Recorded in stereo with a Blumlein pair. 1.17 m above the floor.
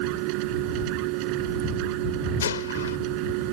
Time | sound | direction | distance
0.0 | a machine running | 45° right | ?
2.4 | a gunshot | 65° left | ?